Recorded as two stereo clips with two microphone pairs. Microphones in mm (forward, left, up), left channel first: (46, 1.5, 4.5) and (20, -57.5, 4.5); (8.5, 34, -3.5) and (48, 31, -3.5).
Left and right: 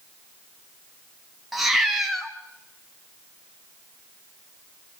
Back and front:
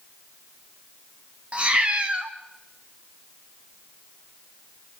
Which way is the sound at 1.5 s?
30° right.